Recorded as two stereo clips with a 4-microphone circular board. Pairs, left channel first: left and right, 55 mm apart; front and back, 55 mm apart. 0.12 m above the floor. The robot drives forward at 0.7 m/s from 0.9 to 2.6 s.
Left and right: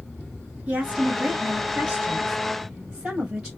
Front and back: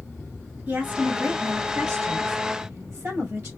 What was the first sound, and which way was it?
A woman speaking, 140° right.